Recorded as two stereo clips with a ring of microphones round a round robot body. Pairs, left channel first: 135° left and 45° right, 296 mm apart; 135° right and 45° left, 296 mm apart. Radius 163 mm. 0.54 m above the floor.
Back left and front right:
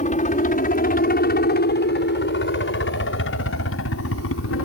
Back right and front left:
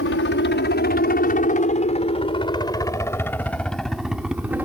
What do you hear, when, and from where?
0.0 s a helicopter: 170° right; by 4.7 s 125° left